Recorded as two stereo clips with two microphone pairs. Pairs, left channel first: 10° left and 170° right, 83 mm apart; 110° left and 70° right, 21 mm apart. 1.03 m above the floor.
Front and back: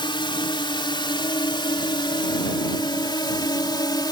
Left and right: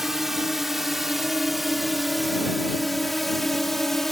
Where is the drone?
Straight ahead; by 4.1 s 35° left.